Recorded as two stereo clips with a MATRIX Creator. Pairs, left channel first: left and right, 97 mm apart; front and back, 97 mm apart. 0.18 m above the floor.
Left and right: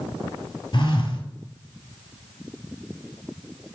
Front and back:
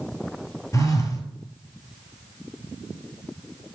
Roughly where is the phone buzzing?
Ahead left.